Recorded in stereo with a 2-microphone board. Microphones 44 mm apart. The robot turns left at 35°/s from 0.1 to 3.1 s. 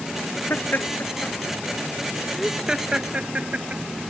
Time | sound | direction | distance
0.5 | laughter | 60° left (ahead or behind) | ?